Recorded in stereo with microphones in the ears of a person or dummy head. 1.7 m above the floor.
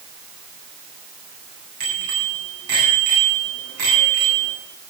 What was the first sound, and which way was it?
A bicycle bell, 60° right (ahead or behind).